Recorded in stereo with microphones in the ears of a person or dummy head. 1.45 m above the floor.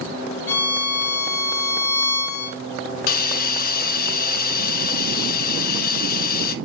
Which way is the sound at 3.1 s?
55° left (ahead or behind).